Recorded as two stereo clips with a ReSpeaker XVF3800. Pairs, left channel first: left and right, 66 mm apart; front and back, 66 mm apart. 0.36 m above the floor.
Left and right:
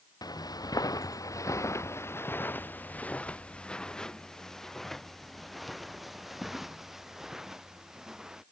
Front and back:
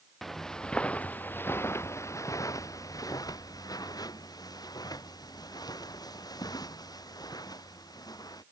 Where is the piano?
No piano in this recording.